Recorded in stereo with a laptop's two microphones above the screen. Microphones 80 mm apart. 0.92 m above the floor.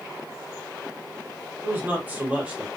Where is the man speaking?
25° right (ahead or behind), 1.6 m; by 2.7 s 15° right (ahead or behind), 1.1 m.